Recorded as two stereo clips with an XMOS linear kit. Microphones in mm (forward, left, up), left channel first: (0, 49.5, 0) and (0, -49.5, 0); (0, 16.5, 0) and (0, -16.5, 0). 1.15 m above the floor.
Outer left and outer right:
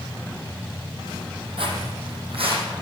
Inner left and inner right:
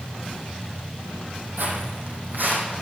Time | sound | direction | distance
1.6 | footsteps | 65° right (ahead or behind) | 3 m